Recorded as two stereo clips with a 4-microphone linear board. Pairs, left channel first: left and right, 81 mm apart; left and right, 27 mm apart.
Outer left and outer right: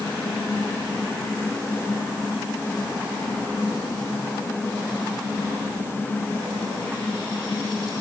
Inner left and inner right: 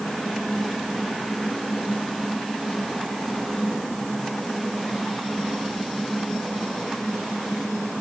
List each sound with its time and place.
Only background noise.